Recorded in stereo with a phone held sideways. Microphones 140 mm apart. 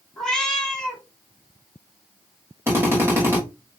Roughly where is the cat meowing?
Centre.